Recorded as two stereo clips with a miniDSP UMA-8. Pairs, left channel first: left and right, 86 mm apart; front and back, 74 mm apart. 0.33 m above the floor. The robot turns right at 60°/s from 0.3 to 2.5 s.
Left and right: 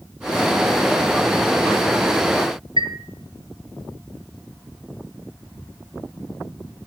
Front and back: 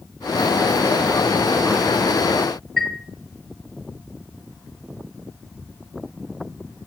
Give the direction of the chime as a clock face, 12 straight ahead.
3 o'clock.